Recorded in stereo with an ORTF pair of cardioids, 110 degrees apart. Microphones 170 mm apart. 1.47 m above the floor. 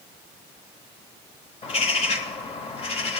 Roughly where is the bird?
Ahead left.